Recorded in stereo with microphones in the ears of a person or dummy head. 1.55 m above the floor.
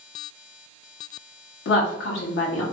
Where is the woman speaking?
70° left (ahead or behind), 1.1 m.